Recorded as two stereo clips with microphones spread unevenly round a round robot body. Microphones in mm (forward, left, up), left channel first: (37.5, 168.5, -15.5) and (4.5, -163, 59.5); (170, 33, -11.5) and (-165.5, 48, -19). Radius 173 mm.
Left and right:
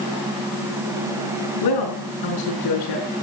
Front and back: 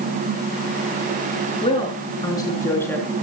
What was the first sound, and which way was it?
A woman speaking, 70° left.